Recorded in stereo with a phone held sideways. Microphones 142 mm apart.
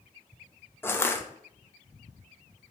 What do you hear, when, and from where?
0.8 s crushing: 15° left (ahead or behind), 0.6 m